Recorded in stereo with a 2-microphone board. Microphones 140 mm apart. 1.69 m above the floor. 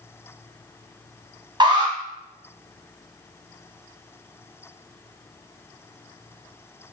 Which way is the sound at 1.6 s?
30° right (ahead or behind).